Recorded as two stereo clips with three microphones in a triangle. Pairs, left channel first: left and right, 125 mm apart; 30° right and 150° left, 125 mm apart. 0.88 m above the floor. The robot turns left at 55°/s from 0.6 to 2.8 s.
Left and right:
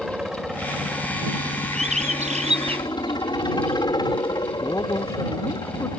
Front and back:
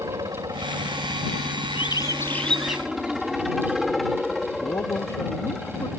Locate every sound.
0.0 s a helicopter: 175° right; by 6.0 s 55° left
1.7 s a bird: 70° right; by 3.8 s 130° right
4.6 s a man speaking: 25° left